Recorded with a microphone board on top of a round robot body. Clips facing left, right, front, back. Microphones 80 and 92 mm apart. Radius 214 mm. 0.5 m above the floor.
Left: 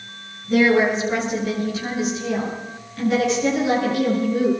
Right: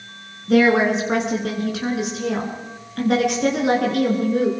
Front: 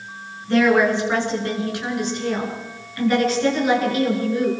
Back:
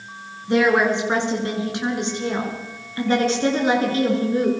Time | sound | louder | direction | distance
0.5 | a woman speaking | right 1 dB, front 1 dB | 105° right | 7.5 m